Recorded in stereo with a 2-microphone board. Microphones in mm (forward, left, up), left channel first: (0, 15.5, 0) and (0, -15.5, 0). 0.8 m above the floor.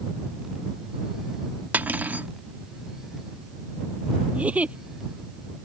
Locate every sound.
1.7 s cutlery clinking: 60° right (ahead or behind)
4.3 s a giggle: 40° right (ahead or behind)